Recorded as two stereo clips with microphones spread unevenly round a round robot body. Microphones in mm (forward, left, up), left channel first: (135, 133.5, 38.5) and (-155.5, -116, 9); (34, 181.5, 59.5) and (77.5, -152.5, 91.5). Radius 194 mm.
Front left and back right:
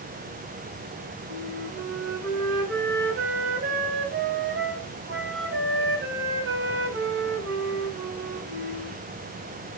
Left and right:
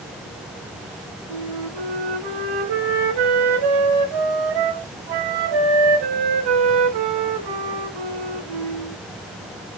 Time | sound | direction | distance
1.3 | a flute | 80° right | 2.5 m